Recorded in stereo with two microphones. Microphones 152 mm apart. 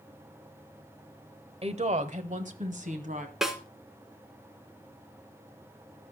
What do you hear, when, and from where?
1.6 s a woman speaking: 45° right (ahead or behind), 1.1 m; by 3.3 s 60° right (ahead or behind), 2.5 m
3.4 s a snare drum: 5° right (ahead or behind), 2 m